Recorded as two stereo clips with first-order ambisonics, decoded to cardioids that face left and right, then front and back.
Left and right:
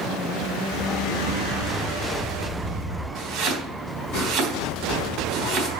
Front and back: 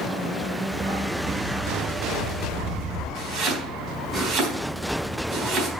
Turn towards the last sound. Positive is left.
turn(degrees=-130)